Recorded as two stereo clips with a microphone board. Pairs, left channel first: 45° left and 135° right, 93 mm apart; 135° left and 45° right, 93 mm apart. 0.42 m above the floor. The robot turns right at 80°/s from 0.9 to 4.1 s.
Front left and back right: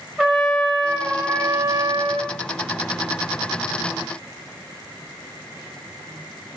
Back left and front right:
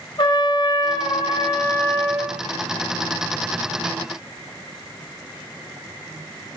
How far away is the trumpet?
About 2 m.